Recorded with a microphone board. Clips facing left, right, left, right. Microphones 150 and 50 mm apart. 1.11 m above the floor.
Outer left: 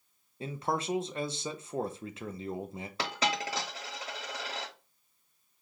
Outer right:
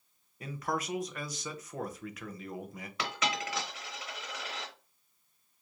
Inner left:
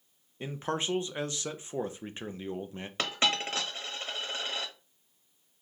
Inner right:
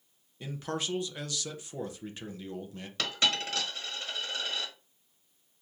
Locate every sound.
0.4 s a man speaking: 25° left (ahead or behind), 0.5 m
3.0 s a dropped coin: 35° left (ahead or behind), 1.1 m